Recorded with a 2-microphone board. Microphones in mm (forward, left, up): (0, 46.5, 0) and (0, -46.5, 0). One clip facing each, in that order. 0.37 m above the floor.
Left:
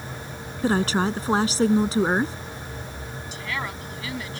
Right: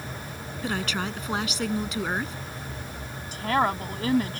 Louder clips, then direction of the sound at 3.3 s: Right 9 dB; 45° right (ahead or behind).